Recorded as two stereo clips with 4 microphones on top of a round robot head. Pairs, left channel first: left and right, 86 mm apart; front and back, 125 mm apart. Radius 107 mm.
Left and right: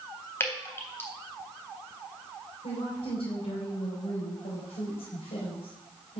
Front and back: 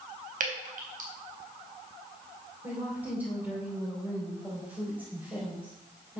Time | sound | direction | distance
0.4 | dripping | 155° left | 3.5 m
2.6 | a woman speaking | 100° left | 4.5 m